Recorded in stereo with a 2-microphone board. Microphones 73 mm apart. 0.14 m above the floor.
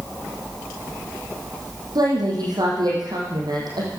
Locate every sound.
1.9 s a woman speaking: 65° right (ahead or behind), 7 m